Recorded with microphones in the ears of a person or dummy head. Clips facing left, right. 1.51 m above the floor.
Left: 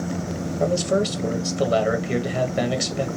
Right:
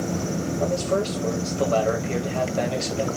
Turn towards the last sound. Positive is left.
turn(degrees=20)  # may be behind; listen again after turning